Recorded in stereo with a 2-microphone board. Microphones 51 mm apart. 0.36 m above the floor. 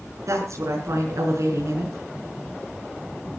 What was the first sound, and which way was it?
A woman speaking, 75° right (ahead or behind).